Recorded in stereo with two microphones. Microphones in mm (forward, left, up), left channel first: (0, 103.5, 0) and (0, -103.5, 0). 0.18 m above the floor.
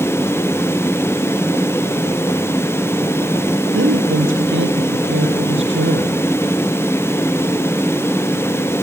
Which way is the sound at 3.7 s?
75° right (ahead or behind).